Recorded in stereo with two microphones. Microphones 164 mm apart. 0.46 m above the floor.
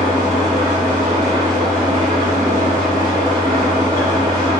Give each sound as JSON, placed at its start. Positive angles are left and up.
{"t": 0.0, "sound": "an engine running", "side_deg": -30, "distance_m": 1.5}